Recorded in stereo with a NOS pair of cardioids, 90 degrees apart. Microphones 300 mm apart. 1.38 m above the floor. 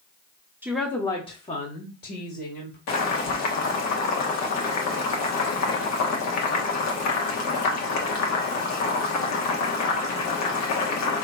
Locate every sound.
0.6 s a woman speaking: 5° right, 0.7 m; by 2.8 s 40° left, 1.7 m
2.9 s boiling: 65° left, 1.1 m